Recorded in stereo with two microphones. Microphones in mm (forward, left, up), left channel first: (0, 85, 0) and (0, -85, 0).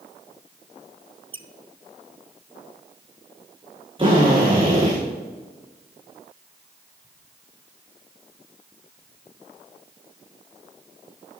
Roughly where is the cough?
I don't hear a cough.